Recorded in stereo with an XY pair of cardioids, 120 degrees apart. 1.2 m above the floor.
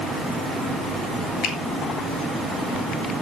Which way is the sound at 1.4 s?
65° left.